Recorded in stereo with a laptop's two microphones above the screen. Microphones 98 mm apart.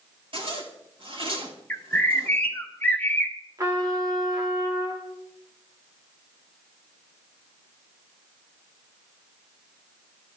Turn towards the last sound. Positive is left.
turn(degrees=-35)  # may be behind; listen again after turning